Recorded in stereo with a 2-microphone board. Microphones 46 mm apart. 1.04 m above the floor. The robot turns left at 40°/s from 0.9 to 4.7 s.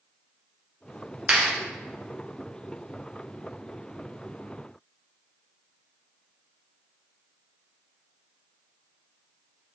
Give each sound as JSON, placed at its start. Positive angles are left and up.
{"t": 1.3, "sound": "a clap", "side_deg": -30, "distance_m": 1.2}